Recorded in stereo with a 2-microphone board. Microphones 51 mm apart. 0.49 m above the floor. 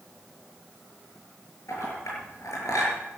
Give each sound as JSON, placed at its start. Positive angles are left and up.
{"t": 1.7, "sound": "a clink", "side_deg": 80, "distance_m": 6.5}